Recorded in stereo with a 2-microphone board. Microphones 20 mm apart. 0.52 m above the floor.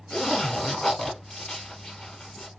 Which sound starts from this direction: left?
A zipper, at 0.1 s.